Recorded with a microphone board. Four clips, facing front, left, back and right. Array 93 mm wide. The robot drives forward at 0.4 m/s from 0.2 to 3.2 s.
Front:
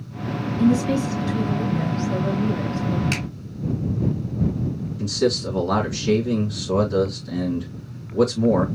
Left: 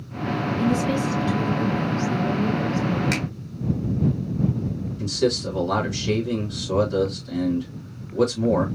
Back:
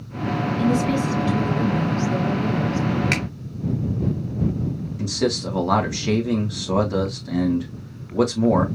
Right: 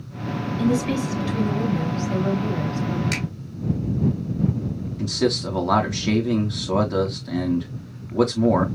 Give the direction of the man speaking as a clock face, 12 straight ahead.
4 o'clock.